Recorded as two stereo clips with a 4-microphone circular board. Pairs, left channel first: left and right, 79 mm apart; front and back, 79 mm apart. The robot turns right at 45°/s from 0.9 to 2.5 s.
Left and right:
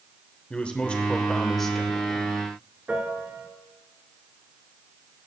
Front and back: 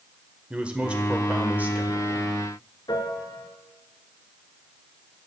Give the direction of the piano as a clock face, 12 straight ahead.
1 o'clock.